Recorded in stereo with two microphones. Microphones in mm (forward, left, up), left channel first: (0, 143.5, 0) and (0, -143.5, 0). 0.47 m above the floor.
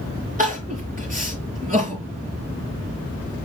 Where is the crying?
30° right (ahead or behind), 4.5 m.